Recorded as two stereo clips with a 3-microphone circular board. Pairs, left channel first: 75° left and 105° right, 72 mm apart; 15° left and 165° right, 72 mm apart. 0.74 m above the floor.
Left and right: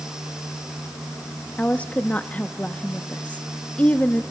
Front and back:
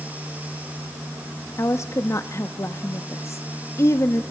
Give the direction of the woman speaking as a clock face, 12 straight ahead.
11 o'clock.